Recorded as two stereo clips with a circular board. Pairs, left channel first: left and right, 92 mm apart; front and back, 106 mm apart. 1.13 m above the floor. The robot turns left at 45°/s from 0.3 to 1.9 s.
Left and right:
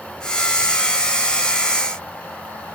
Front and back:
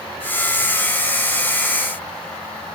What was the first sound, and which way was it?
Only background noise.